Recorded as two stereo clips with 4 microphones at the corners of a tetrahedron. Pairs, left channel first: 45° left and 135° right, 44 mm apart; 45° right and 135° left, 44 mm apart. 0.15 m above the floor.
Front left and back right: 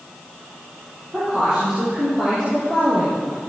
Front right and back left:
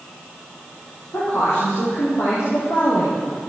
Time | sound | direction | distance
1.1 | a woman speaking | 65° right | 8 m